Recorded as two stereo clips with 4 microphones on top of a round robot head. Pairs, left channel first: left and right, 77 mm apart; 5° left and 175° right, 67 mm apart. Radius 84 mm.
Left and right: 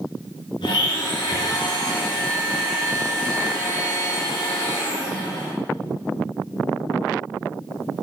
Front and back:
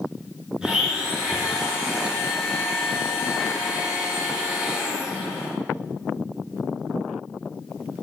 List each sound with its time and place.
0.6 s a blender: 105° left, 5 m